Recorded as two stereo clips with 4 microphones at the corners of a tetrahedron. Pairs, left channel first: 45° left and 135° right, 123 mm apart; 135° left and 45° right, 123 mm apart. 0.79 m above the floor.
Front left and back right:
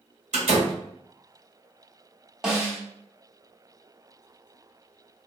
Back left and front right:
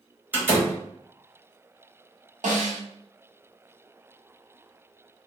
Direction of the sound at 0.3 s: 120° right.